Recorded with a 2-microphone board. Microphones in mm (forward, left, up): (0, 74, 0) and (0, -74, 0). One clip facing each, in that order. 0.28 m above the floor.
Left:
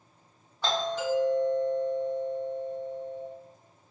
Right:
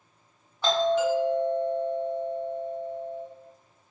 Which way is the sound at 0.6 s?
5° right (ahead or behind).